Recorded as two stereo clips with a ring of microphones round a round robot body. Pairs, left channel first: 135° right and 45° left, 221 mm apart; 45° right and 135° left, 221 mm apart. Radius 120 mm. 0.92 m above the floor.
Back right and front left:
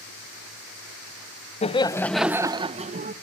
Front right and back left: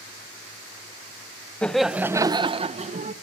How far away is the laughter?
About 0.9 m.